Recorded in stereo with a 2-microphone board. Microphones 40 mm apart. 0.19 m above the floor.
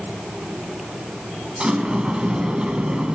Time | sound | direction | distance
1.6 | a sliding door | 25° right (ahead or behind) | 1.6 m